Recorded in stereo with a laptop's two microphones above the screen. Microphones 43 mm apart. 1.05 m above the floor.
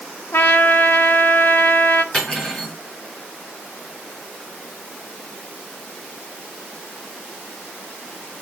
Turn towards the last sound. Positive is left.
turn(degrees=20)  # may be behind; listen again after turning